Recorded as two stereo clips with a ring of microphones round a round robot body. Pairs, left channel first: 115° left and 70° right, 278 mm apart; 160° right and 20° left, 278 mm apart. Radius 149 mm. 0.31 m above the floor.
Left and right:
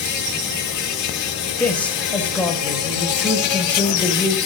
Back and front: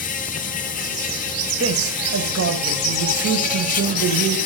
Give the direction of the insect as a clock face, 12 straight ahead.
7 o'clock.